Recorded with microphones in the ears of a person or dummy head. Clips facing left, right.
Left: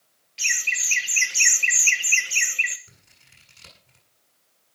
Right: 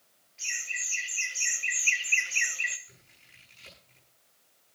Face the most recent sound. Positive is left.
turn(degrees=65)  # may be behind; listen again after turning